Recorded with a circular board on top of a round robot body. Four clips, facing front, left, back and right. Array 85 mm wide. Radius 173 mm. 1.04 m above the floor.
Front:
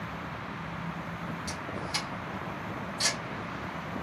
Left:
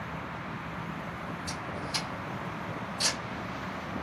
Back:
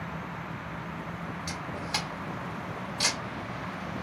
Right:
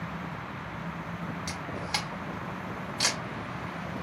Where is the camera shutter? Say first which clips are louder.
Right 2 dB, back 1 dB; 115° right, 0.6 m.